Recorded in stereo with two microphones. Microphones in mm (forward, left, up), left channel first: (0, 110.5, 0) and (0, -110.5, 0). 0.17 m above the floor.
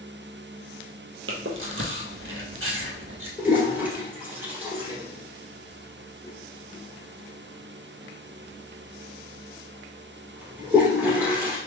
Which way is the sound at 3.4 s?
10° right (ahead or behind).